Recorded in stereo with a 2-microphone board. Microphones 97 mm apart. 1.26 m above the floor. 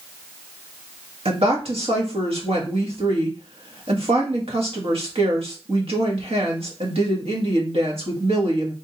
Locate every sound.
1.2 s a woman speaking: 70° right (ahead or behind), 1.8 m